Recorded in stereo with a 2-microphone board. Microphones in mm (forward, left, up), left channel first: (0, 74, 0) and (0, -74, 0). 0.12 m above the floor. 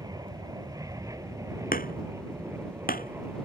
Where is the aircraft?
25° right (ahead or behind); by 3.5 s 15° right (ahead or behind).